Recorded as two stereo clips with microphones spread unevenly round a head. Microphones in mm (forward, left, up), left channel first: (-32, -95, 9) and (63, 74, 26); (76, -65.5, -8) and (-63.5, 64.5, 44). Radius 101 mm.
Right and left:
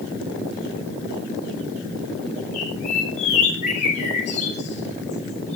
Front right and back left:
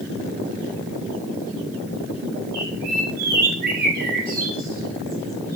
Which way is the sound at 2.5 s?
Straight behind.